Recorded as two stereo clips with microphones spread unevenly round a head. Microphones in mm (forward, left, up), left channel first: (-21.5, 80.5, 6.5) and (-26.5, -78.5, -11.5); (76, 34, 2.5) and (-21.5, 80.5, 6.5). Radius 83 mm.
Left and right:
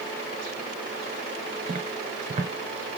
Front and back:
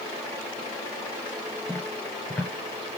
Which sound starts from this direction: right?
Footsteps, at 1.7 s.